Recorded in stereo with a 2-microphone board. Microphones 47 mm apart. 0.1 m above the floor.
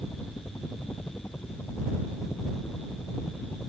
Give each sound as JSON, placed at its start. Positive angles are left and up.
{"t": 0.0, "sound": "a helicopter", "side_deg": 45}